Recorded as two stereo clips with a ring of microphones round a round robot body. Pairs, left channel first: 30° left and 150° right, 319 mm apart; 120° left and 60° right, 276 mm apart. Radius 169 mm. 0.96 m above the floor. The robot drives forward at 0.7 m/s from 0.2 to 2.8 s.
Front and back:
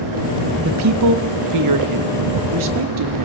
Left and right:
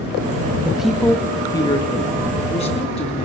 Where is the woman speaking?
140° right, 0.8 m; by 3.2 s 170° right, 2 m.